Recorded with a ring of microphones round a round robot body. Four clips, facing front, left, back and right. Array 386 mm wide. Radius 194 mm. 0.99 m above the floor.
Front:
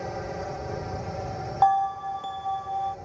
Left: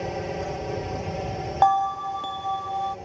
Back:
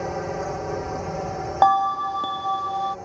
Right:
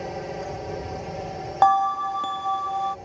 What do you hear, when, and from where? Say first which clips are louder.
0.0 s a drone: left 2 dB, back 5 dB; 160° left
1.6 s a bell: right 2 dB, back 4 dB; 165° right